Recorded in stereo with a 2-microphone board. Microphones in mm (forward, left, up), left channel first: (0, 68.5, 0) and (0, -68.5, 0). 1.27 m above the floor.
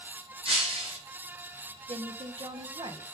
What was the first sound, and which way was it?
Breaking glass, 45° right (ahead or behind).